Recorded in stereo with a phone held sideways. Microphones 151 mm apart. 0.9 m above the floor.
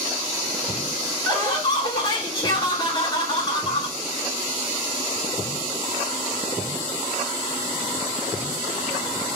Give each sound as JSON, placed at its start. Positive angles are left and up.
{"t": 1.2, "sound": "laughter", "side_deg": 30, "distance_m": 3.0}